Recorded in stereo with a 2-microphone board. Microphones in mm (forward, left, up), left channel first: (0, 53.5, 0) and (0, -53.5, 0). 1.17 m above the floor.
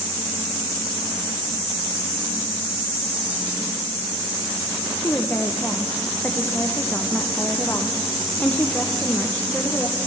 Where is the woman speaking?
15° left (ahead or behind), 0.7 m.